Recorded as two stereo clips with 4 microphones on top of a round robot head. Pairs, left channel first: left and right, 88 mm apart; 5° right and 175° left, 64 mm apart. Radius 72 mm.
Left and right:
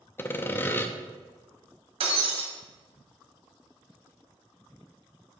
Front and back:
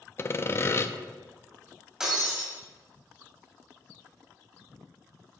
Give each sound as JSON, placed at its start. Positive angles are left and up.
{"t": 0.2, "sound": "sawing", "azimuth_deg": 30, "distance_m": 0.6}
{"t": 2.0, "sound": "breaking glass", "azimuth_deg": -100, "distance_m": 1.8}